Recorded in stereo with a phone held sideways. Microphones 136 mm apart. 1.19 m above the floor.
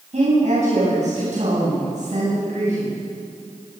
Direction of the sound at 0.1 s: 60° right (ahead or behind).